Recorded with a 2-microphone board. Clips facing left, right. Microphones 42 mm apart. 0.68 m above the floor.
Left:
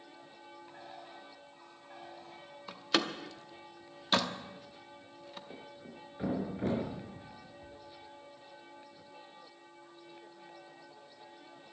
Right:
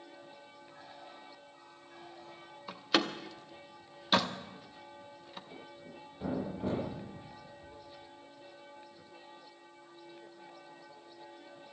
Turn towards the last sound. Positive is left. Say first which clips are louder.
# even
turn(degrees=65)  # may be behind; listen again after turning